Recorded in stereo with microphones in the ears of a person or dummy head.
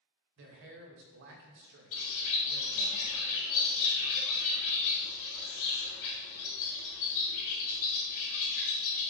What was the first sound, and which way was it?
A man speaking, 60° right (ahead or behind).